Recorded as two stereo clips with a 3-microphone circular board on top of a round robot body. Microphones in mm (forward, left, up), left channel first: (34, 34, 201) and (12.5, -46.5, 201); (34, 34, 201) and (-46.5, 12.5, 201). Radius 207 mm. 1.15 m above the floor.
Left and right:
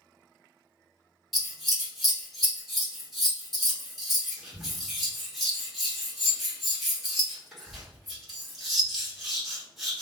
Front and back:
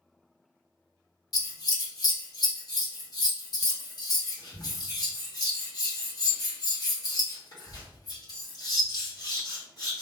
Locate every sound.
1.3 s scissors: 15° right, 1.1 m